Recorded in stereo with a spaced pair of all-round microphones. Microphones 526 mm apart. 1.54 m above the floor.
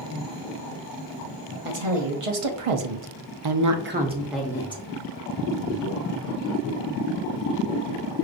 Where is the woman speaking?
70° right (ahead or behind), 1.1 m; by 4.8 s 10° left (ahead or behind), 0.8 m.